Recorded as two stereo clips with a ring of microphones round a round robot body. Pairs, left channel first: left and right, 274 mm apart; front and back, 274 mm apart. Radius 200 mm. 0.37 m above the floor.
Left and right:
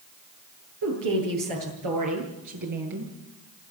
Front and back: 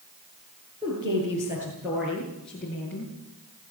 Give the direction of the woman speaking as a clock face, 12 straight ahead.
3 o'clock.